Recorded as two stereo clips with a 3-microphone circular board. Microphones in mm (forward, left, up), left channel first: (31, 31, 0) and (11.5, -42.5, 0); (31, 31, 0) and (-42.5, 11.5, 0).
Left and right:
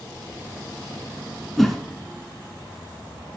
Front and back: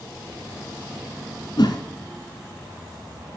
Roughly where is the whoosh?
Ahead.